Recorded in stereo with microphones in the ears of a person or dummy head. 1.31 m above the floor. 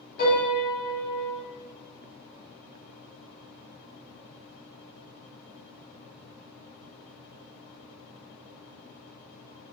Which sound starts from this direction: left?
A piano, at 0.2 s.